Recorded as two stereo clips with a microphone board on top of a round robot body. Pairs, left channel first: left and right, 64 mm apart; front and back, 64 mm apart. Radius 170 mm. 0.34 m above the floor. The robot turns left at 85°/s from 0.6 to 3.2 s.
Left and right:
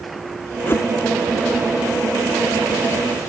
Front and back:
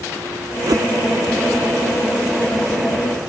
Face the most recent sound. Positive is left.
turn(degrees=-65)